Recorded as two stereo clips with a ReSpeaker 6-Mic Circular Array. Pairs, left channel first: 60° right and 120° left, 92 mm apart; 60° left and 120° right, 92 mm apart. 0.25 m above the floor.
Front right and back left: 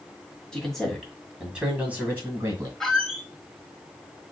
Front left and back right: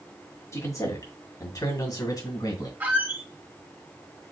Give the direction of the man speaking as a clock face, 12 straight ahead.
11 o'clock.